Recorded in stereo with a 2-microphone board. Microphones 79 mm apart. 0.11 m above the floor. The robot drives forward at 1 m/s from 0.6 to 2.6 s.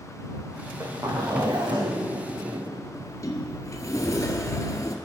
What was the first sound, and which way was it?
A zipper, 40° right (ahead or behind).